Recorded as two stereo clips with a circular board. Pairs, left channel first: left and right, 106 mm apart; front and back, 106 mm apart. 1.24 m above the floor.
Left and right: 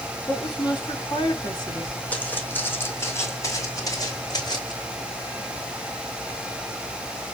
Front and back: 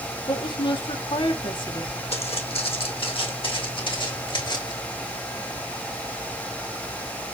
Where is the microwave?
No microwave in this recording.